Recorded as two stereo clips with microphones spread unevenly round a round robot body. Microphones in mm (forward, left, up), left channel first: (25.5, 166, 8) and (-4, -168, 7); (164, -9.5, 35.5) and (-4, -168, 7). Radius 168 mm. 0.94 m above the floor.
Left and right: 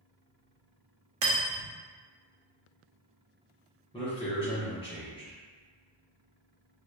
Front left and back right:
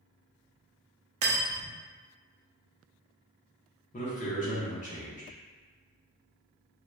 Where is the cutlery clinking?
140° right, 0.7 m.